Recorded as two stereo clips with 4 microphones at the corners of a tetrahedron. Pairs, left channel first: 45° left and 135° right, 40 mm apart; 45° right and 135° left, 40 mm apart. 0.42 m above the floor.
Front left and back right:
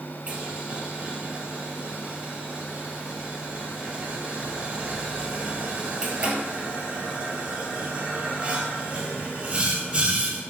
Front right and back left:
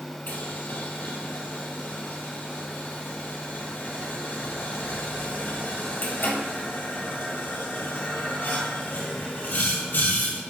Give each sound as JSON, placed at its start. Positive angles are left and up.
{"t": 0.3, "sound": "boiling", "azimuth_deg": -70, "distance_m": 2.0}